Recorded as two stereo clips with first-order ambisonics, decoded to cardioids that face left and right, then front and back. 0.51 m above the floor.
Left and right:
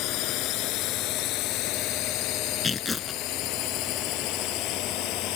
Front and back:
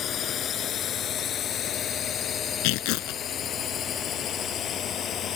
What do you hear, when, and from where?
0.0 s a drone: 60° left
2.6 s tearing paper: 15° left